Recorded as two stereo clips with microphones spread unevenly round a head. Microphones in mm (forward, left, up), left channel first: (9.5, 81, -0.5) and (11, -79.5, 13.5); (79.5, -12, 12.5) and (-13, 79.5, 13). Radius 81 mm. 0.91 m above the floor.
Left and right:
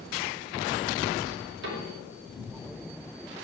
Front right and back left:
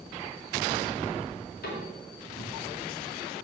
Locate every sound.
1.6 s a cupboard door: 65° right, 4 m